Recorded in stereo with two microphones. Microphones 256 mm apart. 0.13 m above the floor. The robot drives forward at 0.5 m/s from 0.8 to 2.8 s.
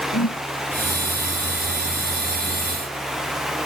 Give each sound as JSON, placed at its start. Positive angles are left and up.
{"t": 0.1, "sound": "a whoosh", "side_deg": 70}